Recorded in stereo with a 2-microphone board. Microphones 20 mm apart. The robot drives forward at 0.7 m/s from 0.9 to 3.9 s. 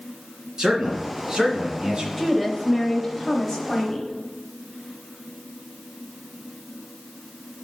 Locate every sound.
0.6 s a man speaking: 35° right (ahead or behind), 2.5 m; by 2.1 s 45° right (ahead or behind), 2 m
2.2 s a woman speaking: 10° right (ahead or behind), 1.0 m; by 4.1 s 5° right (ahead or behind), 1.3 m